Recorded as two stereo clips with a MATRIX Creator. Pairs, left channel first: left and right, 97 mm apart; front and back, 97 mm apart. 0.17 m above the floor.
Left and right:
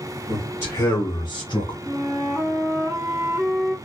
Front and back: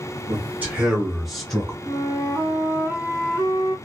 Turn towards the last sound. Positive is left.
turn(degrees=180)